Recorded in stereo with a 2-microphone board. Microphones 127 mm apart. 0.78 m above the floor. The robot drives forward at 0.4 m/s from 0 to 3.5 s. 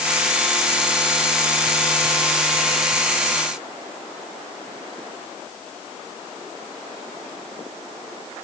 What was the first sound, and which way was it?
Only background noise.